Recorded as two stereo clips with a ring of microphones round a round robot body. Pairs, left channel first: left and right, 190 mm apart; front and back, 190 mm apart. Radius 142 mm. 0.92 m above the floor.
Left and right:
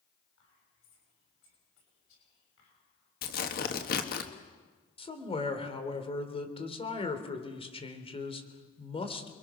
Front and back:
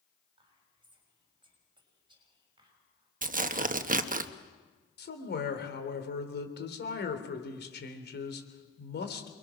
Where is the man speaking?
30° left, 3.5 m.